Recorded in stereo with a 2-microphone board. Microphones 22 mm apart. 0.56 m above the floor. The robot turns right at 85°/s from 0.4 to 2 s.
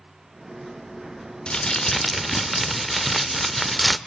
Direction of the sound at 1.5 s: 130° left.